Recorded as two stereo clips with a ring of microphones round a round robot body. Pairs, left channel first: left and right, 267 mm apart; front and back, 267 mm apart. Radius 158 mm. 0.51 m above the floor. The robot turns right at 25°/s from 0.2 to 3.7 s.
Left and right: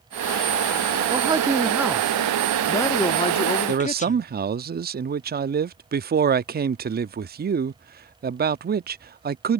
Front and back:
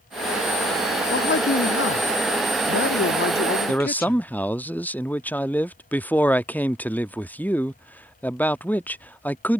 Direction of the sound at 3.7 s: 80° right.